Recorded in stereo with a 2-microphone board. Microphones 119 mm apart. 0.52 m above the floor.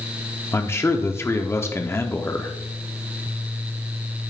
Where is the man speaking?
20° left (ahead or behind), 0.8 m.